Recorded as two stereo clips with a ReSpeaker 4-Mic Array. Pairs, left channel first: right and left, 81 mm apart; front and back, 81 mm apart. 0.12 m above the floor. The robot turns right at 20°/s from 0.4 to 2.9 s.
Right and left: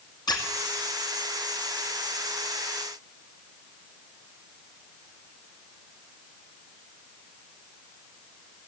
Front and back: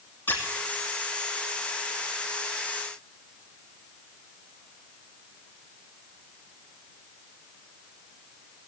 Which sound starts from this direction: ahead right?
A squeak, at 0.3 s.